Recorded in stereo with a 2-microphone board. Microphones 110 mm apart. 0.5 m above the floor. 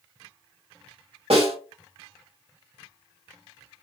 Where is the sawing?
No sawing in this recording.